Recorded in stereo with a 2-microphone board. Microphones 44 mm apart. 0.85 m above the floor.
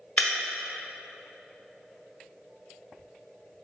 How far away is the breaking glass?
About 1.0 m.